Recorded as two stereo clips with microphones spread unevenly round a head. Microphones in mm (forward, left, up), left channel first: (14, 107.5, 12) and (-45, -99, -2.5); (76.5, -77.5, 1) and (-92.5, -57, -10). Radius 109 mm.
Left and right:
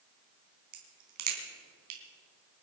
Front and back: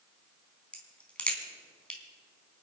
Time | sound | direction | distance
0.7 | a crack | 90° right | 4 m